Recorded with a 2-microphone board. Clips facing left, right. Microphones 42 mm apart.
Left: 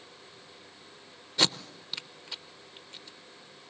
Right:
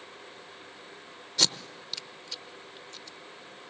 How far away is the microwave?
I don't hear a microwave.